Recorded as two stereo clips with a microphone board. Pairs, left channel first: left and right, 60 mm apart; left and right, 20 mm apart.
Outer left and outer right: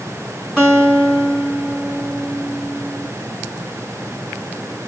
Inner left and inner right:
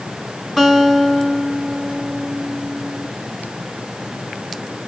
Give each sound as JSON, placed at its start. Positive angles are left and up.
{"t": 0.6, "sound": "a guitar", "side_deg": 0, "distance_m": 3.0}